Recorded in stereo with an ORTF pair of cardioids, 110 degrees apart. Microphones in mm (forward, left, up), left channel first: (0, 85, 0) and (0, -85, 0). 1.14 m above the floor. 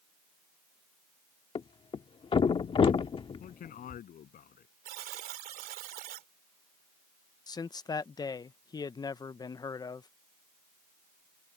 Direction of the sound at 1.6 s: 35° left.